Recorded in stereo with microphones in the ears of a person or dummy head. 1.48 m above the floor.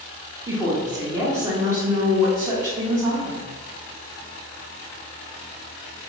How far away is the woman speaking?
About 0.9 m.